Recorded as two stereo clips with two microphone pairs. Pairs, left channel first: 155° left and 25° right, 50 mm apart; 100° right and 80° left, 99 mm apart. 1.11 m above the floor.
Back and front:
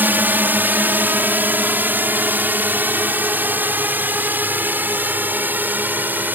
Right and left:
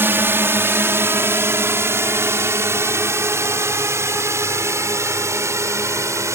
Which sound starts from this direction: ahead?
A drone, at 0.0 s.